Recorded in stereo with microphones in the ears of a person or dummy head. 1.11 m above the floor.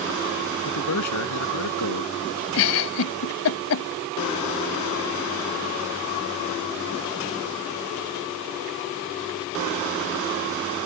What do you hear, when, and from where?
0.7 s a man speaking: 85° left
2.5 s a giggle: 65° left (ahead or behind)